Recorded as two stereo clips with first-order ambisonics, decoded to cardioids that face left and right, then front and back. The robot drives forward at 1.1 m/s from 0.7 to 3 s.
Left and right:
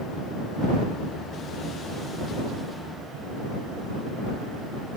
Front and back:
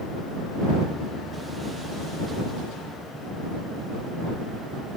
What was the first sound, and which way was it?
Only background noise.